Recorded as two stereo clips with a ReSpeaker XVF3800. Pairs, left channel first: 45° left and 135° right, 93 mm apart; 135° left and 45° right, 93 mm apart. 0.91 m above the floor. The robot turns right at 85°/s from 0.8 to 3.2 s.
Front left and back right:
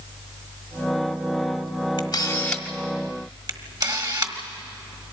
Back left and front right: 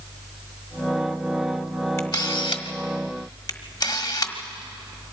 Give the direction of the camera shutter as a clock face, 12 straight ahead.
9 o'clock.